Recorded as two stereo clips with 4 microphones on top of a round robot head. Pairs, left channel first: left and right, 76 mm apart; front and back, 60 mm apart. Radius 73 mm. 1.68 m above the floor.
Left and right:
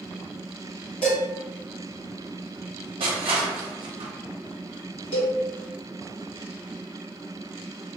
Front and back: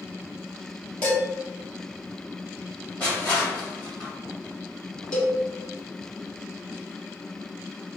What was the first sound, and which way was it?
Dishes clattering, 60° left.